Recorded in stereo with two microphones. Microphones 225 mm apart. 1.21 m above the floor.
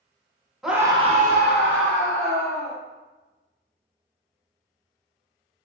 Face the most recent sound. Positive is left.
turn(degrees=-80)